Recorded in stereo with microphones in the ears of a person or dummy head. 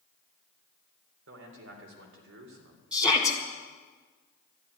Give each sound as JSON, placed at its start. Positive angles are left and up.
{"t": 1.3, "sound": "a man speaking", "side_deg": -80, "distance_m": 3.5}
{"t": 2.9, "sound": "a shout", "side_deg": -10, "distance_m": 2.0}